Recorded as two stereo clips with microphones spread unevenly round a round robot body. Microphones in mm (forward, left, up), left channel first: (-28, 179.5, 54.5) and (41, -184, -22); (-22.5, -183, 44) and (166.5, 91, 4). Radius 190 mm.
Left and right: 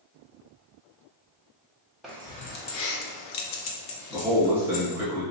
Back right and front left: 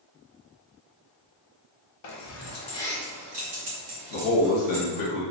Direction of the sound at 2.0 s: 160° right.